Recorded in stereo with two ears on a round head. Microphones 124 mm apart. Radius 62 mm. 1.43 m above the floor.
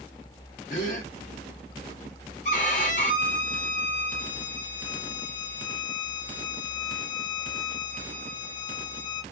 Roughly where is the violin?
Left.